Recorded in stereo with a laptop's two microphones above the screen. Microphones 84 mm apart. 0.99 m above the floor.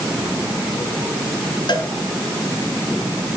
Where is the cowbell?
60° left (ahead or behind), 3 m.